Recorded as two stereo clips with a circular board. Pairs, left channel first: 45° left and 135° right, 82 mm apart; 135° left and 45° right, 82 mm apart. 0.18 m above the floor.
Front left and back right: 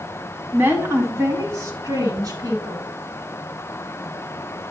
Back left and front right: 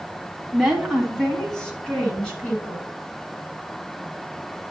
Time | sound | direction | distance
0.5 | a woman speaking | 135° right | 1.4 m